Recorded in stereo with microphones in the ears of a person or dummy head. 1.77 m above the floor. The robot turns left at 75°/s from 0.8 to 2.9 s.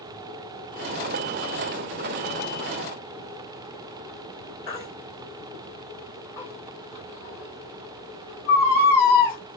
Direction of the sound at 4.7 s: 15° left (ahead or behind).